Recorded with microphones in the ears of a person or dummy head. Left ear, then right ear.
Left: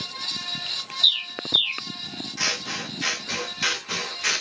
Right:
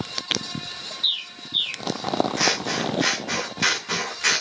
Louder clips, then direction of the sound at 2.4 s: Right 4 dB; 10° right (ahead or behind).